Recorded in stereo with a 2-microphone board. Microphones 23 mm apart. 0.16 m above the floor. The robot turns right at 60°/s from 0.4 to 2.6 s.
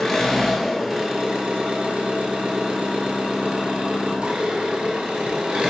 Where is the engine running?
170° left, 0.7 m; by 5.7 s 60° right, 0.7 m.